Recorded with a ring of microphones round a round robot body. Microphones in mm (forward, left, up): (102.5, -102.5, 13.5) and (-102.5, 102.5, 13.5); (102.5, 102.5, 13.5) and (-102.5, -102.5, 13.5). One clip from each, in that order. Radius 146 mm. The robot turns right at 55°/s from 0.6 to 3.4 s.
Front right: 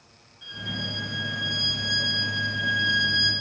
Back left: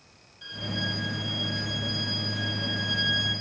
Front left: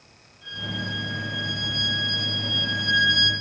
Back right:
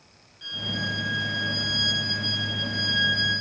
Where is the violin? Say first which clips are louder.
Even, back right 2 dB; 145° right, 6.5 m; by 3.3 s 5° left, 6.5 m.